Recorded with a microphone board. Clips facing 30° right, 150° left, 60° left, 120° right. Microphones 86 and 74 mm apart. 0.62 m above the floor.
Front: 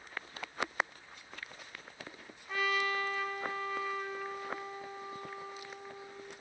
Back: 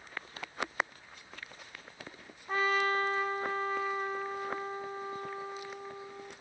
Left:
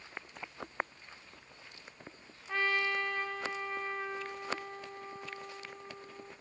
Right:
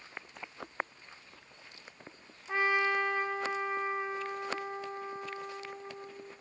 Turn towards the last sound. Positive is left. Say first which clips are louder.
# back 4 dB, right 3 dB
turn(degrees=180)